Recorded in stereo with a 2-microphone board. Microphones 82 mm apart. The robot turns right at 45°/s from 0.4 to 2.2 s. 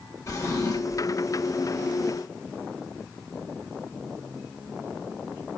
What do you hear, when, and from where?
0.3 s a drawer: 60° left, 0.7 m; by 1.1 s 90° left, 0.7 m